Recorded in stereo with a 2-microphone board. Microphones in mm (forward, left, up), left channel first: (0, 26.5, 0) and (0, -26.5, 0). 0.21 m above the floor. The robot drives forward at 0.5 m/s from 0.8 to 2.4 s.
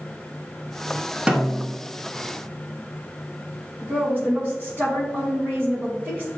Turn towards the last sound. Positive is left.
turn(degrees=-30)  # may be behind; listen again after turning